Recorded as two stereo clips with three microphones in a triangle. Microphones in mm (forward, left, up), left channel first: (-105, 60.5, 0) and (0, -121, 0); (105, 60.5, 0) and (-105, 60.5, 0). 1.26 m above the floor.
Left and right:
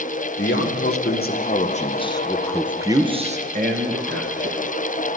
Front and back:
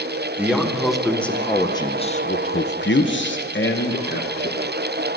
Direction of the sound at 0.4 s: 95° left.